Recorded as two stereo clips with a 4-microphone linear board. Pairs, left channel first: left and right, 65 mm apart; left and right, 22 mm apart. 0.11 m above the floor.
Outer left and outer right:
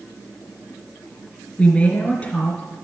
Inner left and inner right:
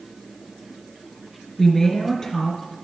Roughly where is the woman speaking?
Centre.